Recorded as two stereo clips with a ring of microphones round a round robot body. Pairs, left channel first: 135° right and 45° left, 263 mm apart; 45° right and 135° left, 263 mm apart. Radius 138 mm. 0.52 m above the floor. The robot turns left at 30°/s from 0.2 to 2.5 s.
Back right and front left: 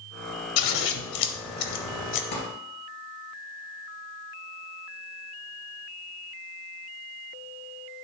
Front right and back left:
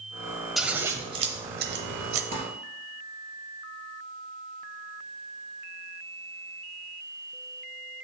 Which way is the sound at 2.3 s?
155° right.